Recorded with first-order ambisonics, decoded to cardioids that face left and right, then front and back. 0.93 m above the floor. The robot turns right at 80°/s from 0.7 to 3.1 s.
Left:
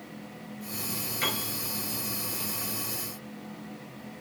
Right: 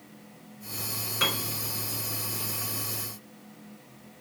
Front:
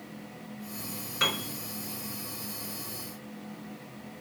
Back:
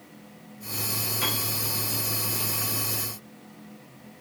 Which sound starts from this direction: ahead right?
A piano, at 1.2 s.